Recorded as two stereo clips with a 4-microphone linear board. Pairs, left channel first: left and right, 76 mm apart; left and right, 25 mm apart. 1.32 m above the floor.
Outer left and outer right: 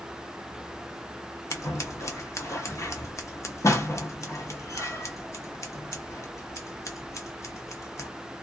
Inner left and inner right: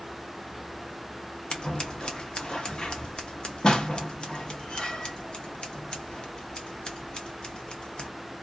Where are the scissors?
40° left (ahead or behind), 0.6 m.